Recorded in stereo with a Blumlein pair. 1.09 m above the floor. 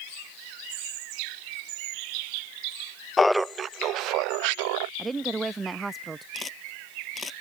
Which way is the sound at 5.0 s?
10° right.